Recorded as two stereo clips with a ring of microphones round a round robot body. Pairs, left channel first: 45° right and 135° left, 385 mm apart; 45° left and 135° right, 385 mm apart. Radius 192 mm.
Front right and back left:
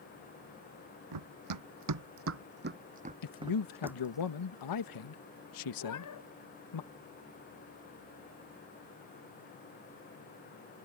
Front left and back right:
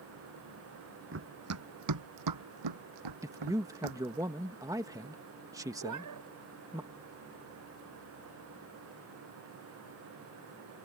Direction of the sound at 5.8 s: 90° right.